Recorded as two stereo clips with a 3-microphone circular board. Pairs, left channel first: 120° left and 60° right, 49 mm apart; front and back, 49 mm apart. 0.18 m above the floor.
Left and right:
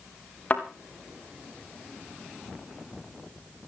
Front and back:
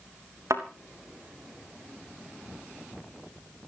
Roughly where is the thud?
Behind.